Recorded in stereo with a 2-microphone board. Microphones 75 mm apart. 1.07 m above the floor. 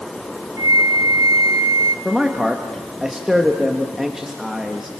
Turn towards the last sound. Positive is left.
turn(degrees=-5)  # may be behind; listen again after turning